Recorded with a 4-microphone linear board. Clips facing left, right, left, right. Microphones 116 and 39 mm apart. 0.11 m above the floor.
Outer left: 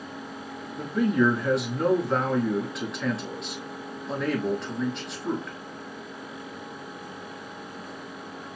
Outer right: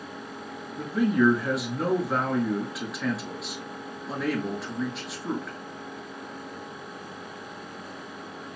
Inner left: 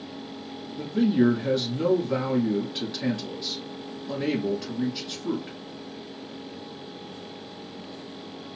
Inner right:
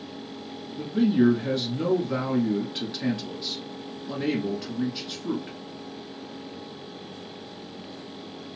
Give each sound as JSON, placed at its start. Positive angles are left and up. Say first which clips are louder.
{"t": 0.8, "sound": "a man speaking", "louder": "even, even", "side_deg": -5, "distance_m": 1.1}